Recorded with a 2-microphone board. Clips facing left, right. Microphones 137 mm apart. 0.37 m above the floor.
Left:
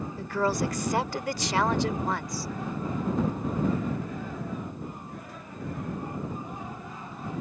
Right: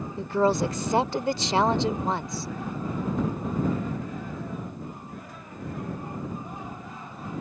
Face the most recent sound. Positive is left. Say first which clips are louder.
# right 5 dB
turn(degrees=-25)  # may be behind; listen again after turning